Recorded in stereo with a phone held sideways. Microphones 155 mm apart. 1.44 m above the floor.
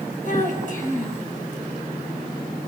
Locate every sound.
0.2 s a child speaking: 55° left (ahead or behind), 6 m